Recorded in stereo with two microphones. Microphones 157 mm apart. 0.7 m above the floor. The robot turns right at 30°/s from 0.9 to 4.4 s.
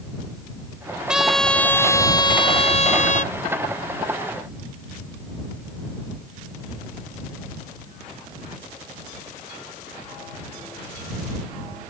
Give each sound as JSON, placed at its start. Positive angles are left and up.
{"t": 1.1, "sound": "a trumpet", "azimuth_deg": -5}